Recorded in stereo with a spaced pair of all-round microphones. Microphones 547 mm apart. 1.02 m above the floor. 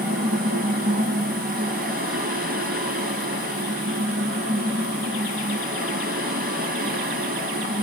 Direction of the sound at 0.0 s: 15° right (ahead or behind).